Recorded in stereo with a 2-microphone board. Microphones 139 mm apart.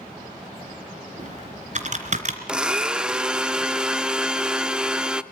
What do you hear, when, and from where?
1.2 s typing on a keyboard: 55° right (ahead or behind), 2.5 m
2.5 s a blender: 5° right (ahead or behind), 0.9 m